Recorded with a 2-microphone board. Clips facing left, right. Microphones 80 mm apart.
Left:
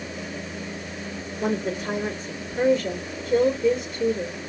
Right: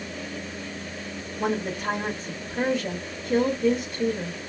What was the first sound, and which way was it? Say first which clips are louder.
A woman speaking: left 1 dB; 70° right (ahead or behind).